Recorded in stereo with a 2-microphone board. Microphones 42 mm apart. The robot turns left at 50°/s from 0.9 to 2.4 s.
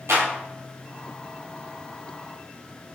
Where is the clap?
70° right (ahead or behind), 3 m.